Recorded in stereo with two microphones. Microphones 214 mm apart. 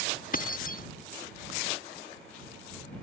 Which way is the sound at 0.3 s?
40° left (ahead or behind).